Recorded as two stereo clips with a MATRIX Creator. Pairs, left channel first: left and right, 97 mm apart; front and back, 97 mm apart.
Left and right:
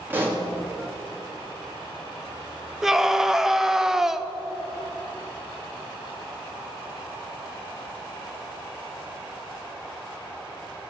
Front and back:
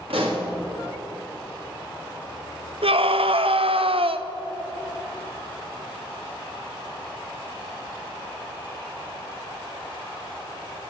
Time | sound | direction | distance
0.1 | a pop | 160° right | 2.5 m
2.8 | a scream | 175° right | 0.8 m